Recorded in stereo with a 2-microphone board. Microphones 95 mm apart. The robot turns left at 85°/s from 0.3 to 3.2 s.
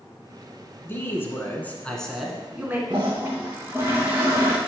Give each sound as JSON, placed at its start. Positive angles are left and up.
{"t": 0.8, "sound": "a man speaking", "side_deg": 20, "distance_m": 1.3}
{"t": 2.9, "sound": "a toilet flushing", "side_deg": -55, "distance_m": 2.0}